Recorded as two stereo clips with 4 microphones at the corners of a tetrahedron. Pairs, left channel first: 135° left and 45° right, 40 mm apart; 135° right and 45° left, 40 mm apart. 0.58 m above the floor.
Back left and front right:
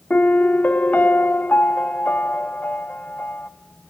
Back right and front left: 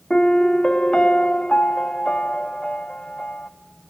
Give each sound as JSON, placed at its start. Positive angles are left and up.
{"t": 0.1, "sound": "a piano", "azimuth_deg": 160, "distance_m": 0.8}